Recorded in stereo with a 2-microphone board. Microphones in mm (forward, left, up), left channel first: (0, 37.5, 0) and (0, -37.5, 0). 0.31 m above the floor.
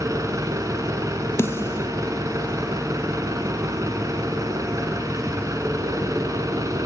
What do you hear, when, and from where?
0.0 s an engine running: 50° right (ahead or behind), 2.5 m
1.4 s a snare drum: 35° left (ahead or behind), 0.5 m